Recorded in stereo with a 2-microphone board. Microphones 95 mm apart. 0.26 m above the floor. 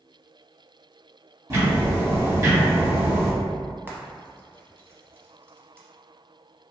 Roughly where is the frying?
Right.